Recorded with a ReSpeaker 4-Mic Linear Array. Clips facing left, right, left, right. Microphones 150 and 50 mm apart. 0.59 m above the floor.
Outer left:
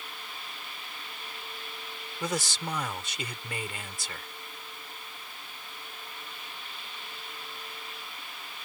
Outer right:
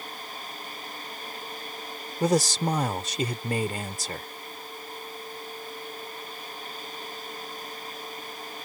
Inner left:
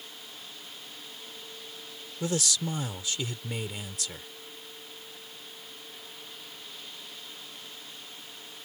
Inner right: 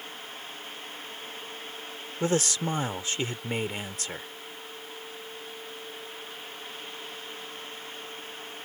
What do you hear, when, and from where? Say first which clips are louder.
2.2 s a man speaking: outer right 10 dB, inner right 4 dB; 40° right (ahead or behind)